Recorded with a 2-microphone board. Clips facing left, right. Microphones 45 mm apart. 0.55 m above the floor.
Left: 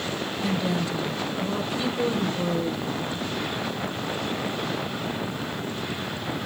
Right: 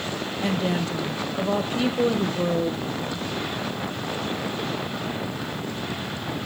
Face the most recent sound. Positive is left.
turn(degrees=-50)  # may be behind; listen again after turning